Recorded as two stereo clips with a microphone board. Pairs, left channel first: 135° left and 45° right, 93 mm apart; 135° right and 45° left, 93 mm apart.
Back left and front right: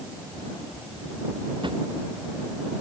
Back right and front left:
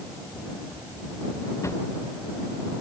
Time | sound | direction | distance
1.6 | a drawer | 75° right | ?